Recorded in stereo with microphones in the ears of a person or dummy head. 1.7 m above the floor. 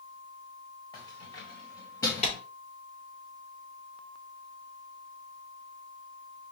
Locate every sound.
0.9 s keys jangling: 20° left (ahead or behind), 1.7 m; by 2.4 s 5° left (ahead or behind), 0.8 m
2.2 s a clap: 35° left (ahead or behind), 3.5 m